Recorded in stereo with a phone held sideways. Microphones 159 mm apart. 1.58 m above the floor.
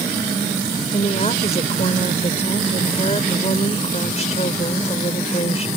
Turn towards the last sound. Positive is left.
turn(degrees=45)  # may be behind; listen again after turning